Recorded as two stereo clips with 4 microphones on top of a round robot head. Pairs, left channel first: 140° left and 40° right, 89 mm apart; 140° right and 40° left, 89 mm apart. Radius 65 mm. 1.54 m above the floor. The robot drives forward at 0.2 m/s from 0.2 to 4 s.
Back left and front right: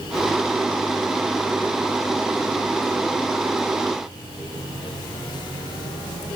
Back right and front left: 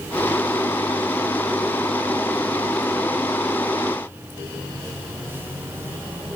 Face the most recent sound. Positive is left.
No sound to turn to.